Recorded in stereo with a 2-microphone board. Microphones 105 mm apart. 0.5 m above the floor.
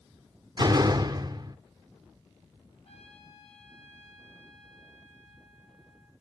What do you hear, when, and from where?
0.6 s a door slam: 40° right (ahead or behind), 0.8 m
2.9 s a trumpet: 80° left, 4 m